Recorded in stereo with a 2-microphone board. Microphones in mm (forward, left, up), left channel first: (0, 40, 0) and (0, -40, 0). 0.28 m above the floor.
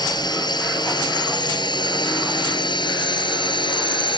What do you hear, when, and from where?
0.0 s a drone: 60° left (ahead or behind); by 4.2 s 75° left (ahead or behind)